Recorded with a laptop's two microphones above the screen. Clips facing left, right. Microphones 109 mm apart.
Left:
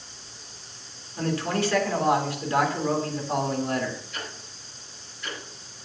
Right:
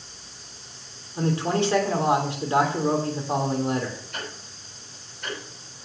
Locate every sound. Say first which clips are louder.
1.2 s a man speaking: right 3 dB; 25° right (ahead or behind), 3 m
4.1 s ticking: right 2 dB; 50° right (ahead or behind), 7.5 m